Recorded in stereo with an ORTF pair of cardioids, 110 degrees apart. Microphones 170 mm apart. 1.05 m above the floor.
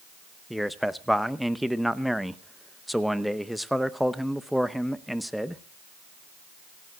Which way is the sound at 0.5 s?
Straight ahead.